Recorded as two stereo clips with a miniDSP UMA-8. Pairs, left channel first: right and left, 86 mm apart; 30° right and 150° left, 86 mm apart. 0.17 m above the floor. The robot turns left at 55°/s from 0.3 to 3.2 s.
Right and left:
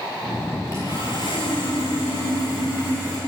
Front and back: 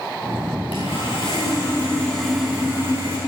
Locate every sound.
0.7 s sawing: 35° right, 9.5 m; by 3.2 s 170° right, 9.5 m